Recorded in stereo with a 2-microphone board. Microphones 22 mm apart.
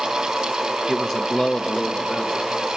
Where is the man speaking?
Centre (ahead or behind), 0.8 m; by 2.4 s 65° left (ahead or behind), 2 m.